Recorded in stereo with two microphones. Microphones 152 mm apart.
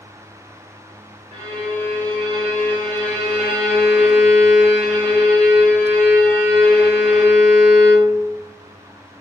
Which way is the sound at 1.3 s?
45° right (ahead or behind).